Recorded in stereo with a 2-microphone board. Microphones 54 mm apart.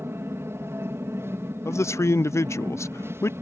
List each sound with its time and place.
0.0 s an aircraft: 55° right (ahead or behind)
1.6 s a man speaking: 65° left (ahead or behind)